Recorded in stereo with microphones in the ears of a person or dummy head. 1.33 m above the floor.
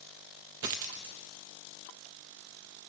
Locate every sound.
0.6 s a dropped coin: 20° right (ahead or behind), 0.6 m